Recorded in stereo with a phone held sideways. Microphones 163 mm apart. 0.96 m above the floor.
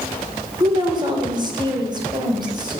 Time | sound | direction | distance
0.6 | a woman speaking | 30° right (ahead or behind) | 3 m